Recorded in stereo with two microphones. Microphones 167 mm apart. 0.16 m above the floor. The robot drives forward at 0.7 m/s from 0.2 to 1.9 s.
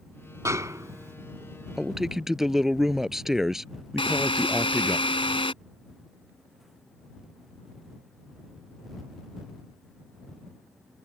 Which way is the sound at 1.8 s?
Centre (ahead or behind).